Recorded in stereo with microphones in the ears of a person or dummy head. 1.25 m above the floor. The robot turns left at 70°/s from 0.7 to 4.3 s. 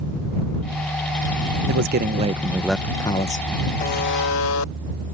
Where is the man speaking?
105° right; by 3.5 s 135° left.